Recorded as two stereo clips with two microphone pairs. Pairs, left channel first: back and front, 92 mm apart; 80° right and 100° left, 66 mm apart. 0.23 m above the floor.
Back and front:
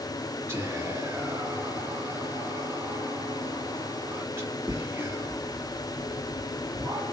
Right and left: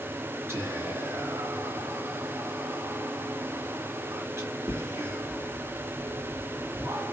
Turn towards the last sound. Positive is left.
turn(degrees=60)